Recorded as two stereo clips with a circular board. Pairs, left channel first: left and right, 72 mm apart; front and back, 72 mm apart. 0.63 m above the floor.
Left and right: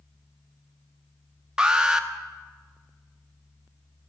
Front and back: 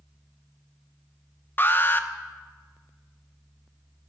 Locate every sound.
1.6 s an alarm: 20° right, 0.9 m